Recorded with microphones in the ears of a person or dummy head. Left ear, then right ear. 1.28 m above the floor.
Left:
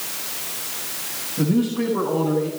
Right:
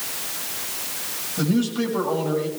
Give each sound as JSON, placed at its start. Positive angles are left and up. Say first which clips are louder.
{"t": 1.4, "sound": "a man speaking", "louder": "left 2 dB", "side_deg": -55, "distance_m": 6.0}